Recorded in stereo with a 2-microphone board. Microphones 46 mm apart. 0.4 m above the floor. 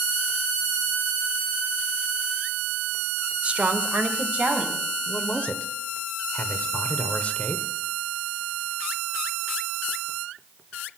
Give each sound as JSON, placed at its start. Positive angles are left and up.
{"t": 3.4, "sound": "a woman speaking", "side_deg": -30, "distance_m": 0.9}
{"t": 5.1, "sound": "a man speaking", "side_deg": 30, "distance_m": 1.1}